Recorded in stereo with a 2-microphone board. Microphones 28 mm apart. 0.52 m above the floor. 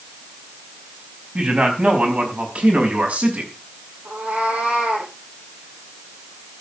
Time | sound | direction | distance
1.4 | a man speaking | 50° right (ahead or behind) | 4.5 m
4.0 | a cat meowing | 80° right | 8 m